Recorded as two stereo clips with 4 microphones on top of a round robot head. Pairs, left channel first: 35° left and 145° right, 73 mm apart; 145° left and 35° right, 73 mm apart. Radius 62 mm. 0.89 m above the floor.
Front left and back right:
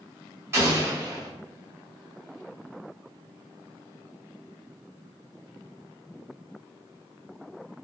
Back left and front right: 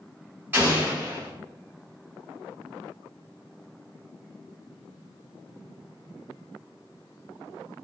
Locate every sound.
0.5 s an explosion: 95° right, 1.2 m